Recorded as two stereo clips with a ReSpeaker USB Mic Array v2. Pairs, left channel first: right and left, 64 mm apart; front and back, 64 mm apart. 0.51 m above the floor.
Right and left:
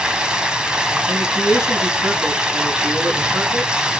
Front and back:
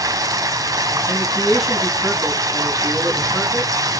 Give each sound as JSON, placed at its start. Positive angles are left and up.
{"t": 0.0, "sound": "running water", "azimuth_deg": 165, "distance_m": 1.5}
{"t": 1.1, "sound": "a man speaking", "azimuth_deg": 90, "distance_m": 5.0}